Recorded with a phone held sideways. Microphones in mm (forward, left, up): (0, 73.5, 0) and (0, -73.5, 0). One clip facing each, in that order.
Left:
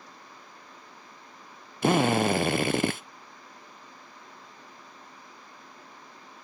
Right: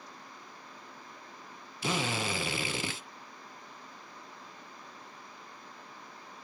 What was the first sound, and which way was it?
A drill, 55° left (ahead or behind).